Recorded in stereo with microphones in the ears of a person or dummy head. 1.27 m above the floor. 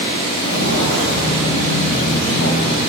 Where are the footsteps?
70° left (ahead or behind), 4.5 m; by 2.8 s 65° left (ahead or behind), 7 m.